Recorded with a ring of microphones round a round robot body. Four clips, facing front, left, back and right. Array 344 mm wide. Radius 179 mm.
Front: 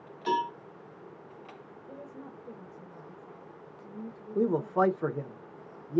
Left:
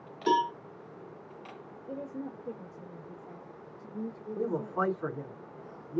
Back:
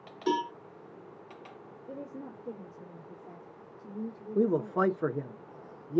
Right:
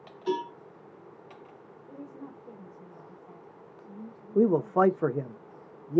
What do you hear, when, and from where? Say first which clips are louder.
0.3 s a cowbell: left 4 dB, front 1 dB; 105° left, 4 m
1.9 s a woman speaking: left 5 dB, back 4 dB; 130° left, 2 m
4.3 s a man speaking: right 9 dB, front 1 dB; 100° right, 1.0 m